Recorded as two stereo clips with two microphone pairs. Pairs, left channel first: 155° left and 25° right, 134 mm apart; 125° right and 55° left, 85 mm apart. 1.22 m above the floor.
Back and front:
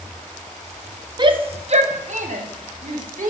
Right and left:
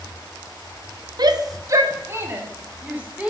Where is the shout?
25° left, 0.7 m; by 3.3 s 20° right, 1.6 m.